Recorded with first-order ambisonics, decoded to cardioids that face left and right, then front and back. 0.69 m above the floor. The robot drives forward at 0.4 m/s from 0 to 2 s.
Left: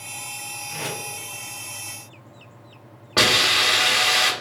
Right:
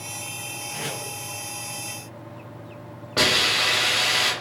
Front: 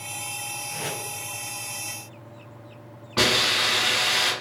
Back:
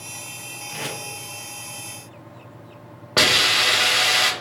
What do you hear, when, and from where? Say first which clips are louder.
0.7 s tape being pulled: left 2 dB, back 3 dB; 175° right, 0.8 m
3.2 s a hiss: left 3 dB, back 4 dB; 165° left, 0.7 m